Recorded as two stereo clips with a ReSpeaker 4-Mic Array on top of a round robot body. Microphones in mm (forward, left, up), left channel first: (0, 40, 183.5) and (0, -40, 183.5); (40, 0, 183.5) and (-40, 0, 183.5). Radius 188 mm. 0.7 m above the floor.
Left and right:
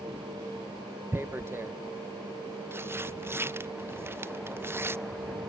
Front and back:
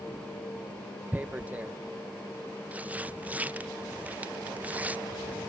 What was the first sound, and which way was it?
Tearing paper, 120° right.